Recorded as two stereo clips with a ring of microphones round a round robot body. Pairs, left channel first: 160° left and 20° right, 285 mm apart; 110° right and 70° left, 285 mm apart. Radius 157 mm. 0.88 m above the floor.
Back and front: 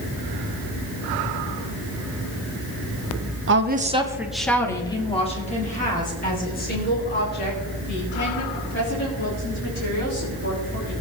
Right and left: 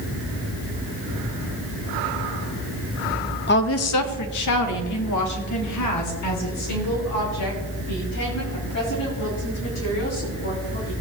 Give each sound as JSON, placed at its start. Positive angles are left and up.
{"t": 3.5, "sound": "a woman speaking", "azimuth_deg": -60, "distance_m": 1.2}